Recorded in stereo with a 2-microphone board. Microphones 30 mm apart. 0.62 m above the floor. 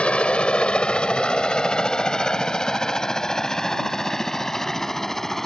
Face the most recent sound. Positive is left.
turn(degrees=15)  # may be behind; listen again after turning